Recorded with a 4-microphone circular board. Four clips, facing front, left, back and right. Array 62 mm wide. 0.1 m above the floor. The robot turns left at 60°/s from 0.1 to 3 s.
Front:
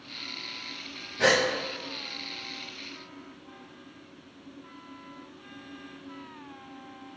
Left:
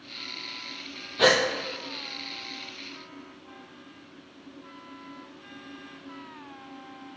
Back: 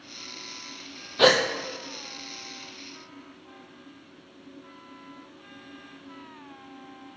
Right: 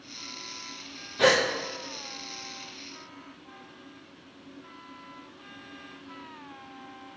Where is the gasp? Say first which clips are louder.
Even, back 3 dB; 175° left, 0.9 m; by 1.4 s 160° left, 0.9 m.